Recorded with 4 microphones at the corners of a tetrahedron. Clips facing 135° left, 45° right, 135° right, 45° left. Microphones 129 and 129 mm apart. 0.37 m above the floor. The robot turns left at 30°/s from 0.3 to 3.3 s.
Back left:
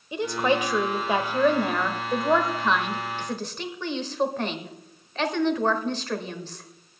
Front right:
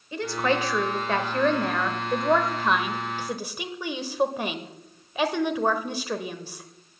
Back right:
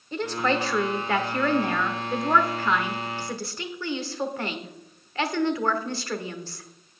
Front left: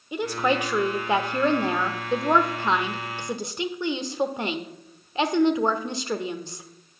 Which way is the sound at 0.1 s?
105° left.